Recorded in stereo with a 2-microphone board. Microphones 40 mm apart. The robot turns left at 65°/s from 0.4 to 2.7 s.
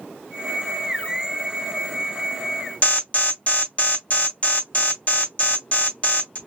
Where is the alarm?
35° left (ahead or behind), 2.5 m.